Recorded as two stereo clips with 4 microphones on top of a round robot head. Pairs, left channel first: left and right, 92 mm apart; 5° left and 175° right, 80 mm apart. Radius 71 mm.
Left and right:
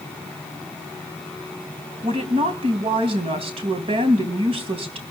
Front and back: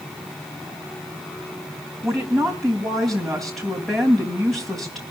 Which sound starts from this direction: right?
A woman speaking, at 2.0 s.